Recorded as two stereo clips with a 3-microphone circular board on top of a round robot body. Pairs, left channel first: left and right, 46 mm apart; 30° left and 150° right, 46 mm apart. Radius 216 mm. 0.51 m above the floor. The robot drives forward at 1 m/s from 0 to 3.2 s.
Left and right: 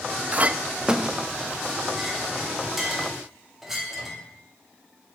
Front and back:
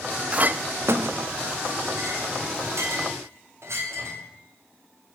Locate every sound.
0.3 s a clink: 105° right, 0.6 m; by 4.2 s 175° right, 3 m